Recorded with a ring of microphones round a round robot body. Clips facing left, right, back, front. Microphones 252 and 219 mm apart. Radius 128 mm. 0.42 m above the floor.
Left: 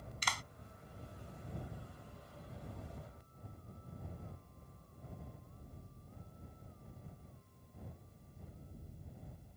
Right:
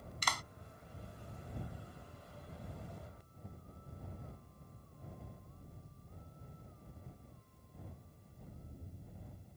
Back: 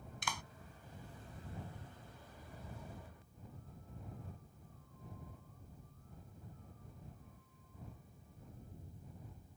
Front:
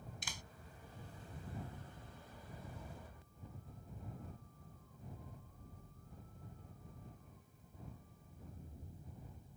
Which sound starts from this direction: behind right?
A clap, at 0.2 s.